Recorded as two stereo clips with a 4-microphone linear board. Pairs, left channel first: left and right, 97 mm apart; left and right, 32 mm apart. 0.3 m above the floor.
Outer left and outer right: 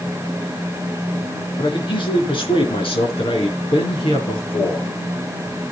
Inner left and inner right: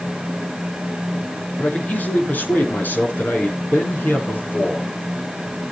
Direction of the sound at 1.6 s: 55° left (ahead or behind).